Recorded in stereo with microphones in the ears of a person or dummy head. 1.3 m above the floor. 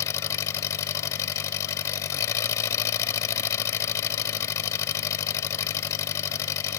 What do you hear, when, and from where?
0.0 s an engine running: 15° left (ahead or behind)